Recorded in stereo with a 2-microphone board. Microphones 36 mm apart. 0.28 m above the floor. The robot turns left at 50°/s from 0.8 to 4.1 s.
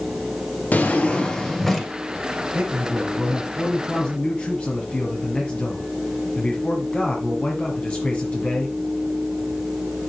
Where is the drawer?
50° left, 1.6 m; by 1.9 s 5° right, 1.6 m.